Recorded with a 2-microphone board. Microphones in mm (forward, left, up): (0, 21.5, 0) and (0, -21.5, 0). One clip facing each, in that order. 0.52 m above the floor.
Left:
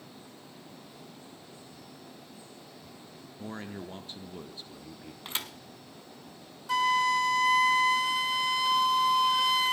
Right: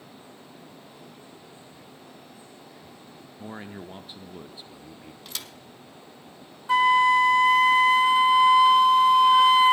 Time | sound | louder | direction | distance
3.4 | a man speaking | right 1 dB | 10° right (ahead or behind) | 0.8 m
5.2 | a thud | left 3 dB | 30° left (ahead or behind) | 1.2 m
6.7 | a flute | right 7 dB | 25° right (ahead or behind) | 0.5 m